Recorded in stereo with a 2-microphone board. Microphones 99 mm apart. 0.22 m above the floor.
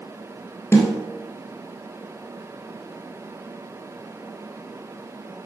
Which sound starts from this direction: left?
A snare drum, at 0.7 s.